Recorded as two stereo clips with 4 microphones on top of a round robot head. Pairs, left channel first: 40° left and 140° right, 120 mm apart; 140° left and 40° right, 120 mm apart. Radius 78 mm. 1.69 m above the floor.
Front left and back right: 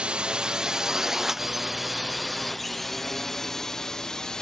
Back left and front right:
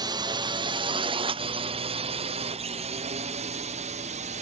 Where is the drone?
65° right; by 4.4 s 45° right.